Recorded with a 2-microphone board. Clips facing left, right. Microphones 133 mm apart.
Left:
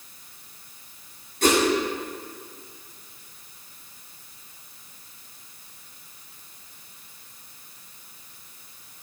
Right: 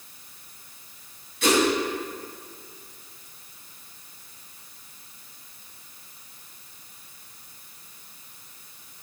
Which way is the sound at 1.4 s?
45° left (ahead or behind).